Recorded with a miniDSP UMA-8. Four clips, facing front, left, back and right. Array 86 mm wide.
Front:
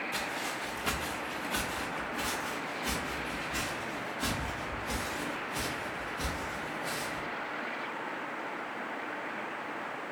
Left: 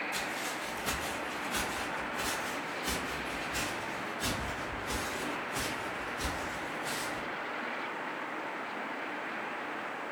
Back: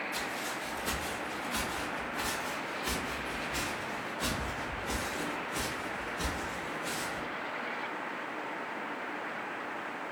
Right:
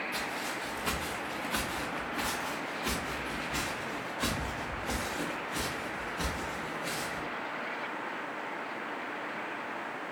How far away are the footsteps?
About 1.1 m.